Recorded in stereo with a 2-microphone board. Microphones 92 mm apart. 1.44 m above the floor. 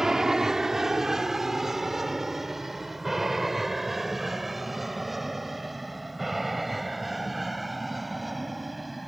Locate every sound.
0.0 s an aircraft: 5° right (ahead or behind); by 9.1 s centre (ahead or behind)